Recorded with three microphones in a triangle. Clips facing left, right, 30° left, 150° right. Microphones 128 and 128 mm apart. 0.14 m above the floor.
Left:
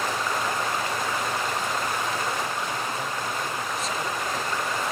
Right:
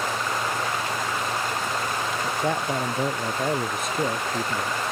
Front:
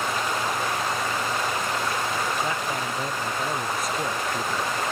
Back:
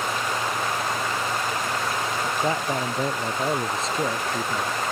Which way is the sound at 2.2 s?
95° right.